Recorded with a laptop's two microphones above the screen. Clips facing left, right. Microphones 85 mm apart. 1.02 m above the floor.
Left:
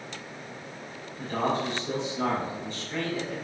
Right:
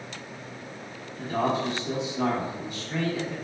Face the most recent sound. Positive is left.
turn(degrees=-10)  # may be behind; listen again after turning